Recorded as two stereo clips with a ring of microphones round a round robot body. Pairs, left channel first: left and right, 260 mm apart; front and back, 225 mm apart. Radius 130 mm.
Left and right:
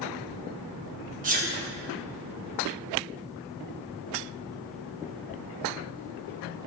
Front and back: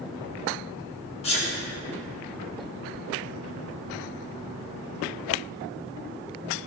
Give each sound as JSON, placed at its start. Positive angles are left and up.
{"t": 1.2, "sound": "a sneeze", "azimuth_deg": -50, "distance_m": 0.8}